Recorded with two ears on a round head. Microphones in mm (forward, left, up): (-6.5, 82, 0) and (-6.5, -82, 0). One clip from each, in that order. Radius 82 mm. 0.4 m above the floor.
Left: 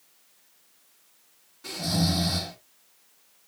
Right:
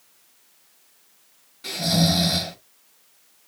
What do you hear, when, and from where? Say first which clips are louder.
1.6 s snoring: right 6 dB; 25° right (ahead or behind), 2 m